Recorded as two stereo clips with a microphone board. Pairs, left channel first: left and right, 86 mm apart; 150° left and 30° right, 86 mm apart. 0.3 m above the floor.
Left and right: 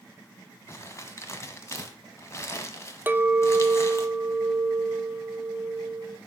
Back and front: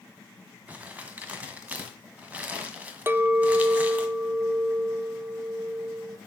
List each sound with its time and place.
0.7 s crumpling: 40° left, 1.4 m
3.1 s a clink: 55° right, 0.6 m